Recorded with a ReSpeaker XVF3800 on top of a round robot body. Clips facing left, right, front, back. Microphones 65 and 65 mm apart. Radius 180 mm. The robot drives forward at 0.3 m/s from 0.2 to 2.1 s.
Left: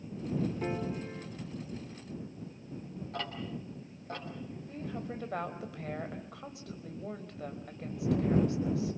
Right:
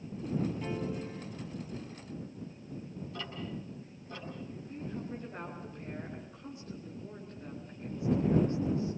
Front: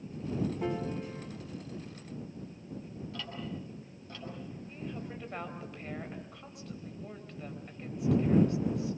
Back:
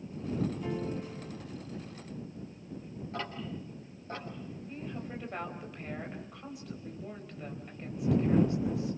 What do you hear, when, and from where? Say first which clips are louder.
0.6 s a piano: left 1 dB, front 1 dB; 35° left, 3.5 m
3.1 s ticking: left 3 dB, back 3 dB; 125° left, 6 m
4.7 s a woman speaking: left 1 dB, back 2 dB; 95° left, 3.5 m